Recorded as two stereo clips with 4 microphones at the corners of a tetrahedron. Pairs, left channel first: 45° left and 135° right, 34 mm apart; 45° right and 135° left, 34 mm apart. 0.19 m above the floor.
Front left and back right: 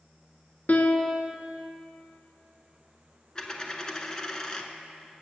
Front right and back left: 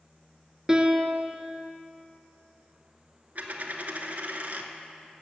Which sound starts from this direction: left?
A dropped coin, at 3.4 s.